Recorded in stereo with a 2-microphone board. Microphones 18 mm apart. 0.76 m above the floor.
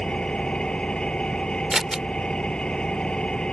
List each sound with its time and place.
0.0 s an engine running: 50° left (ahead or behind)
1.7 s scissors: 15° right (ahead or behind)